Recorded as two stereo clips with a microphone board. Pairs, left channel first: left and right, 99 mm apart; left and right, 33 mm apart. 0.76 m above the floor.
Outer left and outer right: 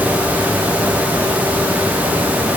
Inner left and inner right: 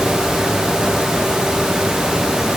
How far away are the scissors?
I don't hear scissors.